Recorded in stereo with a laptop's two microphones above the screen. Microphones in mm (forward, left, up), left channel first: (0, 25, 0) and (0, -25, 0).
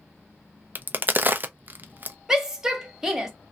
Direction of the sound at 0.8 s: 40° right (ahead or behind).